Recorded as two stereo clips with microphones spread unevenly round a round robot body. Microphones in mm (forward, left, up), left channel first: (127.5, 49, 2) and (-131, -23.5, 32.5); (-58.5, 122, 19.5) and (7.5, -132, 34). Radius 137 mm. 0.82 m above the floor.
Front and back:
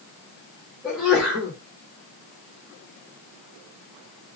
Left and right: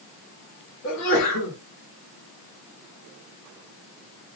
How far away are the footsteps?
I don't hear footsteps.